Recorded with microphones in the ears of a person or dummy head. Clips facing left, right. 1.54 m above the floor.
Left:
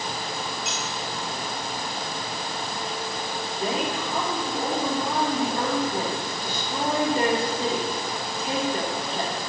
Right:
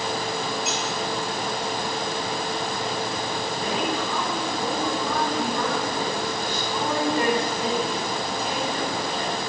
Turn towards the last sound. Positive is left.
turn(degrees=40)  # may be behind; listen again after turning